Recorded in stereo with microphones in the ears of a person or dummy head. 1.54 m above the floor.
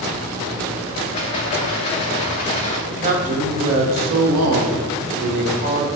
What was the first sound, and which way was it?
A rattle, 30° left (ahead or behind).